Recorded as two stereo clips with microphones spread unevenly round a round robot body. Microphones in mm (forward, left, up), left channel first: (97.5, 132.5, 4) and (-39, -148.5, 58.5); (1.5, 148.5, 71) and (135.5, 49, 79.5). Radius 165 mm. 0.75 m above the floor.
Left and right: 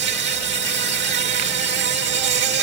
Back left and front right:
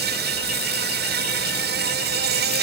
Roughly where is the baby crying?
I don't hear a baby crying.